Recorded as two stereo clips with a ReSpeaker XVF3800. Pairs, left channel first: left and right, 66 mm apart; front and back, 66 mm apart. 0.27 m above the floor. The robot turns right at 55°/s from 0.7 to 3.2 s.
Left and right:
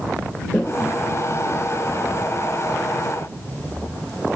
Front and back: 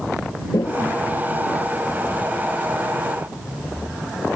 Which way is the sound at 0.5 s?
25° left.